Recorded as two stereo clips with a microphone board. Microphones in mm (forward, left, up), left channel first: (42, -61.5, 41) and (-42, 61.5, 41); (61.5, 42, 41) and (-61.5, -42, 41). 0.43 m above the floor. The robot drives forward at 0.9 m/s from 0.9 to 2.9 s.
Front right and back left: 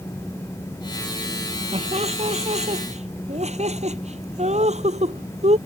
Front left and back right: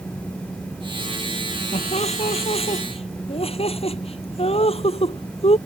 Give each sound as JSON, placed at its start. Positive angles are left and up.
{"t": 1.7, "sound": "laughter", "azimuth_deg": 80}